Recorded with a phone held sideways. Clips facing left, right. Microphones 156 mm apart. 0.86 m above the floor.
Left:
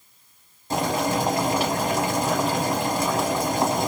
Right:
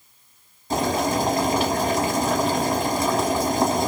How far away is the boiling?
About 1.1 m.